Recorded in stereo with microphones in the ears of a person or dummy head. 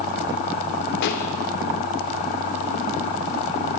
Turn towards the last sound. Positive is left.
turn(degrees=60)  # may be behind; listen again after turning